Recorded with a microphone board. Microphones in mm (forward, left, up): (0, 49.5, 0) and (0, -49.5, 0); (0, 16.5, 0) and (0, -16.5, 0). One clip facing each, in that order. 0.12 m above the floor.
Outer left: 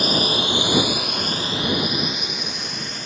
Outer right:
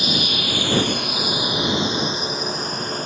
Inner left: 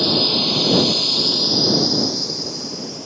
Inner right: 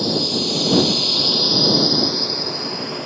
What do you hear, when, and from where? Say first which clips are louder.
0.0 s a drone: outer left 3 dB, inner left 2 dB; 50° left (ahead or behind); by 3.1 s 45° right (ahead or behind)